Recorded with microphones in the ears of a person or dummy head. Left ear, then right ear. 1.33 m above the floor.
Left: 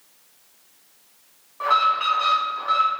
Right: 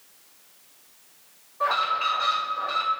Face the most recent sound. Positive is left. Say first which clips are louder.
# left 4 dB
turn(degrees=60)  # may be behind; listen again after turning